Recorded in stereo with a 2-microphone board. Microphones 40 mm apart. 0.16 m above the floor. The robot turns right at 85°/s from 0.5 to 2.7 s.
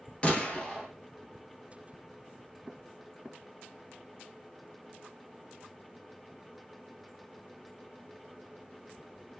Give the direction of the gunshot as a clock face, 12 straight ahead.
7 o'clock.